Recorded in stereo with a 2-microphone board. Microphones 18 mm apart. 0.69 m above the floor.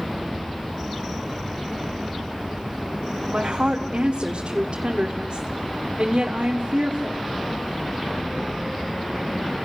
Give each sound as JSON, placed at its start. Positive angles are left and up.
{"t": 3.3, "sound": "a woman speaking", "side_deg": -60, "distance_m": 1.6}